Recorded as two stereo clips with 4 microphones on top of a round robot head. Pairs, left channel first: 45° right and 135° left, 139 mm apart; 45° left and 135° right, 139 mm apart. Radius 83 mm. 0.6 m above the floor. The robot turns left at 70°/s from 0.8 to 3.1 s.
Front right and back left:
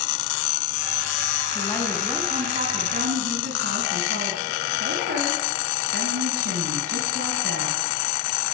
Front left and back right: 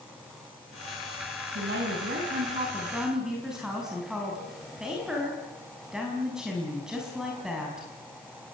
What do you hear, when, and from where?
1.6 s a woman speaking: 110° right, 5.5 m; by 7.9 s 140° left, 5.5 m